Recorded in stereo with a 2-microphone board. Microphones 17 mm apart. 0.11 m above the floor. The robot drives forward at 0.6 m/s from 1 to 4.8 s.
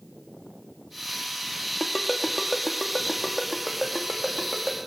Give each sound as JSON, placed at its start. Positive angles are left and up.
{"t": 1.8, "sound": "a ringtone", "side_deg": 0, "distance_m": 1.5}